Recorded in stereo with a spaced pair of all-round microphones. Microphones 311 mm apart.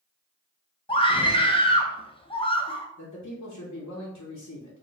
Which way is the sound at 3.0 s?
60° left (ahead or behind).